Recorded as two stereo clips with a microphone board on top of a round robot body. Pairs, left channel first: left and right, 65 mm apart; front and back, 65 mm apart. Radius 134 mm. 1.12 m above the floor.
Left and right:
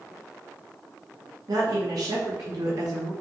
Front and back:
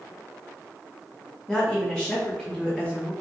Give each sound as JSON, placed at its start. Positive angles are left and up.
{"t": 1.5, "sound": "a woman speaking", "azimuth_deg": -85, "distance_m": 2.5}